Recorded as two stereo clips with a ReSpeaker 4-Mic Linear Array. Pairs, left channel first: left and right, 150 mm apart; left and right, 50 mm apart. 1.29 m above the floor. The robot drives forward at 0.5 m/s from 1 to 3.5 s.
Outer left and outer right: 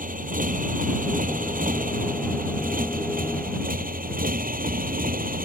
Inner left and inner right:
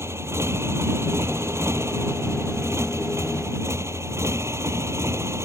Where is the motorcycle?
65° right (ahead or behind); by 5.5 s 70° right (ahead or behind).